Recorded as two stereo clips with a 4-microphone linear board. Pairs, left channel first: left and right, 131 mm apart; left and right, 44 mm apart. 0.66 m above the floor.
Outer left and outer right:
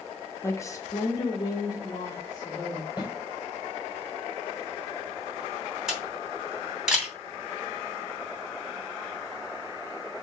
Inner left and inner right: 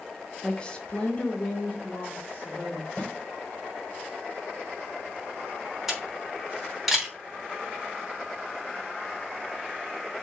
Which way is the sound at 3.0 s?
30° left (ahead or behind).